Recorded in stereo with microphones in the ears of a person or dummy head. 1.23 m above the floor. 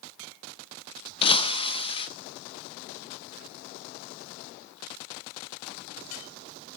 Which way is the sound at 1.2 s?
30° left (ahead or behind).